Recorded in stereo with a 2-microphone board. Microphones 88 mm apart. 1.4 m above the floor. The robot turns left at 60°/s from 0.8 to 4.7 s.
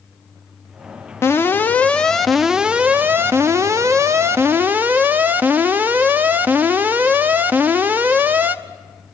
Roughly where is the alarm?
Ahead left.